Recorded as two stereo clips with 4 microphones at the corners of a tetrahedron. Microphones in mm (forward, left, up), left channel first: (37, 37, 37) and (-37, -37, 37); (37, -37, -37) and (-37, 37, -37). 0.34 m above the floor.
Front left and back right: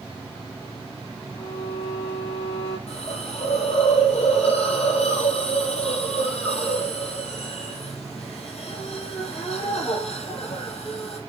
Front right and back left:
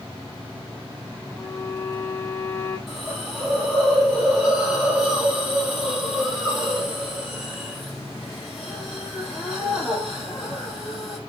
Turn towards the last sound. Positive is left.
turn(degrees=45)